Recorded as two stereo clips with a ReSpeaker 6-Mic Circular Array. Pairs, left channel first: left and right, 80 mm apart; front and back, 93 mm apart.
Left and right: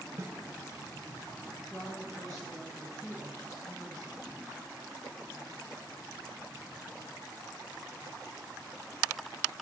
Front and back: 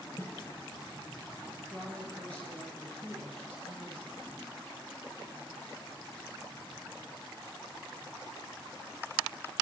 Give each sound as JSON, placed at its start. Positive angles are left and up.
{"t": 0.2, "sound": "a snare drum", "azimuth_deg": -45, "distance_m": 1.1}
{"t": 1.7, "sound": "a woman speaking", "azimuth_deg": 75, "distance_m": 2.0}